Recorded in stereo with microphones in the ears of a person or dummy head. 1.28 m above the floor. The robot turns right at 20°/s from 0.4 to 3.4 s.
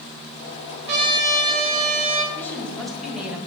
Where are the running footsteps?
No running footsteps in this recording.